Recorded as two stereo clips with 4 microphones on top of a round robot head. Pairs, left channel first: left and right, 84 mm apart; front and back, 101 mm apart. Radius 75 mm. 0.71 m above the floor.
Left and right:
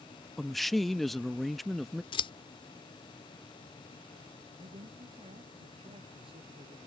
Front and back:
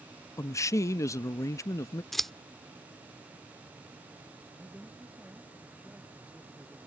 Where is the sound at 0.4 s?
5° left.